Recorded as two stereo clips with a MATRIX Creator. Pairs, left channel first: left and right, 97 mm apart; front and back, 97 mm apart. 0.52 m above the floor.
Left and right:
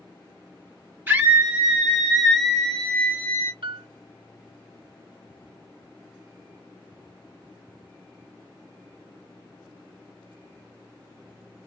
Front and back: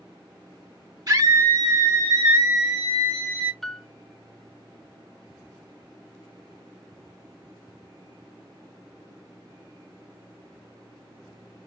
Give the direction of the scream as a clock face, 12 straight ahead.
5 o'clock.